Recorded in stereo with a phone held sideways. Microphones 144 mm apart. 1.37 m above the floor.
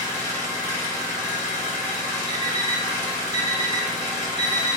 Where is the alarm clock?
30° right (ahead or behind), 0.6 m.